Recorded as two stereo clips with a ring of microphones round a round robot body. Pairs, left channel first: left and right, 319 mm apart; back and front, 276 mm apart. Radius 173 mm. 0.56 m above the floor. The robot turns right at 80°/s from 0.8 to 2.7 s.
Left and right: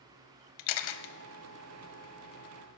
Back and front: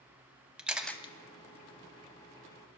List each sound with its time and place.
0.6 s a camera shutter: 85° left, 0.8 m; by 1.1 s 110° left, 0.8 m